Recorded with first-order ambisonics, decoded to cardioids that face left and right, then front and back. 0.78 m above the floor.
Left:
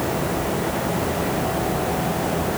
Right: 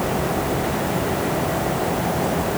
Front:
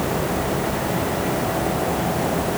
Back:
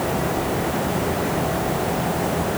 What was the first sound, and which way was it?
Only background noise.